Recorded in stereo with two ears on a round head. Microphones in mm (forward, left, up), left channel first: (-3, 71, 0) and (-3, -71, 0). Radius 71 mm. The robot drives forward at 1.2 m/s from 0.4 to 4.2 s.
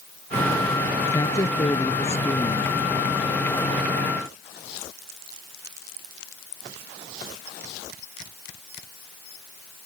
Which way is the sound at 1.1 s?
20° left (ahead or behind).